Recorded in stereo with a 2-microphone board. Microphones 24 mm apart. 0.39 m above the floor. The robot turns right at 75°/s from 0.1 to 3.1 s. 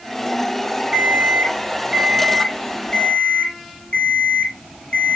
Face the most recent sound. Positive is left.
turn(degrees=55)